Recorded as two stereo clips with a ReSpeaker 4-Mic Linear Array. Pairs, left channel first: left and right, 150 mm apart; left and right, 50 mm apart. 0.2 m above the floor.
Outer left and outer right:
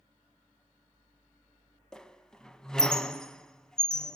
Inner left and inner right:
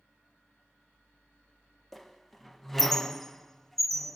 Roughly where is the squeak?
Centre.